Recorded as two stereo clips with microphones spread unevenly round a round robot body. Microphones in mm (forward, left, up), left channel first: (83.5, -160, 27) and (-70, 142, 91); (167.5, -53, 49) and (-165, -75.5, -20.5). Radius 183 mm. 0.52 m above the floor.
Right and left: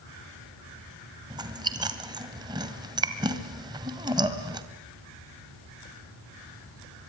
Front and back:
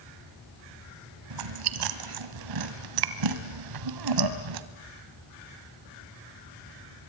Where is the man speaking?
I don't hear a man speaking.